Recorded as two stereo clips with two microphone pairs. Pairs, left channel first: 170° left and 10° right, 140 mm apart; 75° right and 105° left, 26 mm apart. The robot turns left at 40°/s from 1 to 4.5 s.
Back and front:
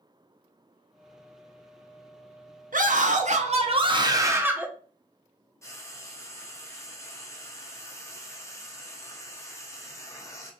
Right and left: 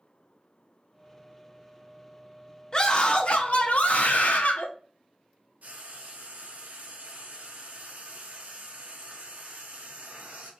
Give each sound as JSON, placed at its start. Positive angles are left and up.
{"t": 2.7, "sound": "a scream", "azimuth_deg": -20, "distance_m": 0.6}
{"t": 5.6, "sound": "frying", "azimuth_deg": 100, "distance_m": 0.6}